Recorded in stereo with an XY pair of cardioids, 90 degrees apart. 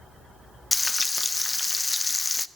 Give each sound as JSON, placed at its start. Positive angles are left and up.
{"t": 0.7, "sound": "frying", "azimuth_deg": 20, "distance_m": 0.8}